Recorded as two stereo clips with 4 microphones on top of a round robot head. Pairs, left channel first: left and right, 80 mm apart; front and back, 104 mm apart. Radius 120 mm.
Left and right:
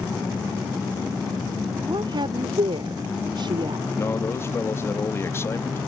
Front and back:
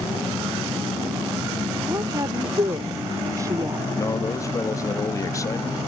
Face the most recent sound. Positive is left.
turn(degrees=45)